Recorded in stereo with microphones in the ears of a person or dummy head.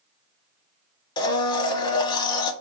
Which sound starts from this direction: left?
A blender, at 1.2 s.